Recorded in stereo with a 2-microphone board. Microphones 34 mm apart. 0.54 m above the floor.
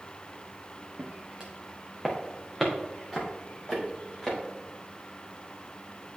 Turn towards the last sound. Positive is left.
turn(degrees=15)  # may be behind; listen again after turning